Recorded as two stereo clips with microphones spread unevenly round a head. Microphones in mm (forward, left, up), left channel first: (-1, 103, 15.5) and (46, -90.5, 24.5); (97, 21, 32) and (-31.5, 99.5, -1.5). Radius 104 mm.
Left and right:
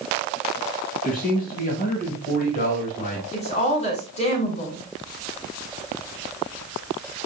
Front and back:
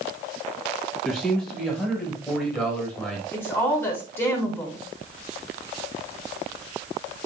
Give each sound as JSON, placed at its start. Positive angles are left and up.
{"t": 1.0, "sound": "a man speaking", "azimuth_deg": 55, "distance_m": 6.5}
{"t": 3.3, "sound": "a woman speaking", "azimuth_deg": 45, "distance_m": 6.0}